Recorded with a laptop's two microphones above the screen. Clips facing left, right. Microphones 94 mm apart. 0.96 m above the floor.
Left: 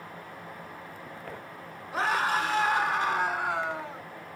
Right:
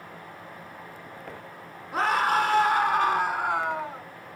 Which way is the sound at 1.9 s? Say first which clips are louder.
Right 4 dB; 55° right (ahead or behind).